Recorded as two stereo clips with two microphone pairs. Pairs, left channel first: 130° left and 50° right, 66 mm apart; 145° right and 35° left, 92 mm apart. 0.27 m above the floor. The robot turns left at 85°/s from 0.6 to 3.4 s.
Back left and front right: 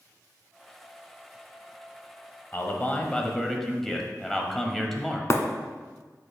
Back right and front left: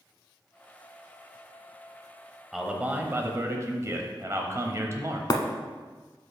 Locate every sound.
2.5 s a man speaking: 125° left, 1.0 m; by 5.2 s 50° left, 1.0 m
5.3 s breaking glass: 175° left, 0.7 m